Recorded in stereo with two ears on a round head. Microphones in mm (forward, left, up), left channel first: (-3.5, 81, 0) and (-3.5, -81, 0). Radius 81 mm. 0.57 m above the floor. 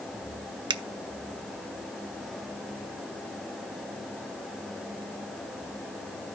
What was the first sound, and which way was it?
A finger snap, 25° right (ahead or behind).